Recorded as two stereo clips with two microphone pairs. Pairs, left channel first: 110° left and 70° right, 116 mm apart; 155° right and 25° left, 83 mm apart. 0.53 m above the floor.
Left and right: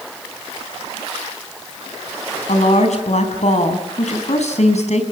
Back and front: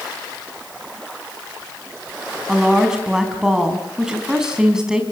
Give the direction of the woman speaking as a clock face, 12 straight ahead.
8 o'clock.